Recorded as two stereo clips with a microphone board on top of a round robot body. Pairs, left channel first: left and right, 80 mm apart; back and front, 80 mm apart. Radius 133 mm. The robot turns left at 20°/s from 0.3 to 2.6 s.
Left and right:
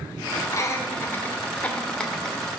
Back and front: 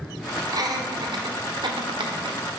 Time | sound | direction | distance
0.5 | laughter | 40° left | 1.9 m